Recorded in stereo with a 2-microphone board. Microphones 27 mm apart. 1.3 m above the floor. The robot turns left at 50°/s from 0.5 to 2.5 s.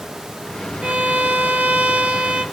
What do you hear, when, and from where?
0.8 s a violin: 50° right, 1.2 m; by 2.5 s 135° right, 1.2 m